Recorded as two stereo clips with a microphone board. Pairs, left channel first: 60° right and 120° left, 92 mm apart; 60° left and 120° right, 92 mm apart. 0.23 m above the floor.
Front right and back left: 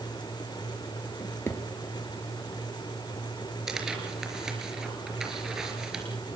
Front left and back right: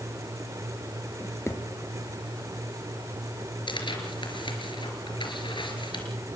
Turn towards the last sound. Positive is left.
turn(degrees=35)